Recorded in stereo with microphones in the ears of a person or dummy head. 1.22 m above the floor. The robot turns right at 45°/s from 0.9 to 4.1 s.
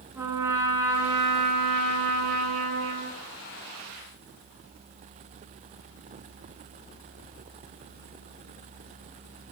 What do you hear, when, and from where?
0.1 s a trumpet: 160° right, 8.5 m; by 3.2 s 55° right, 8.5 m